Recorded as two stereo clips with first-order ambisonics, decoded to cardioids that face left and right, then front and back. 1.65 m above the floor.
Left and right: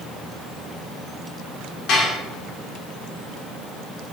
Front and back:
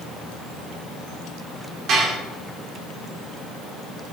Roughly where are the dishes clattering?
Behind left.